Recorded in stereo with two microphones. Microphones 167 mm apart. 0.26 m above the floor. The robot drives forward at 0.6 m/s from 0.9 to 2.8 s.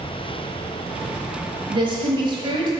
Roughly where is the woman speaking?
Right.